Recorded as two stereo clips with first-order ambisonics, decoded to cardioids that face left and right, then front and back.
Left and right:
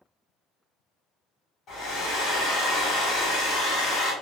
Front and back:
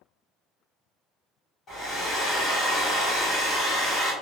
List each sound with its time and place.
1.7 s a hair dryer: 50° left, 1.4 m